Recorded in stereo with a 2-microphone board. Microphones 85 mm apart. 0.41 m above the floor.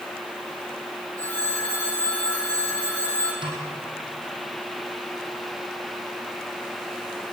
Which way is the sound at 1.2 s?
20° left (ahead or behind).